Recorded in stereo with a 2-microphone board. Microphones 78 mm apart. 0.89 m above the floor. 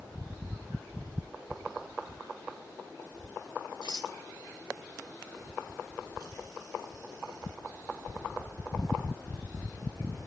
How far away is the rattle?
About 1.1 m.